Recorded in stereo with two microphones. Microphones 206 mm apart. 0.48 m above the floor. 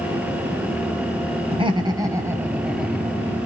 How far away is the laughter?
About 2 m.